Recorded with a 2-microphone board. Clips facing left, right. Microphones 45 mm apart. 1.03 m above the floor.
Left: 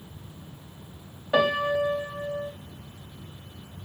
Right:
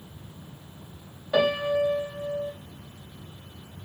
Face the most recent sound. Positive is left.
turn(degrees=15)  # may be behind; listen again after turning